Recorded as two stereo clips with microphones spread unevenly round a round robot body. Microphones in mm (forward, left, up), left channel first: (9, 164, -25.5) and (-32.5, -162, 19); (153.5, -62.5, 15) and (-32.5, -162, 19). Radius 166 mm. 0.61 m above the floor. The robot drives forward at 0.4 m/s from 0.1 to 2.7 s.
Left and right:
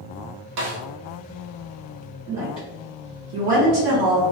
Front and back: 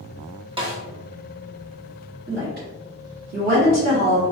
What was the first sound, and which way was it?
A snare drum, 105° right.